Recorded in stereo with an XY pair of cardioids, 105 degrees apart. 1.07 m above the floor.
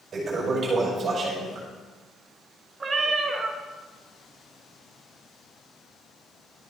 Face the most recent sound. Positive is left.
turn(degrees=-35)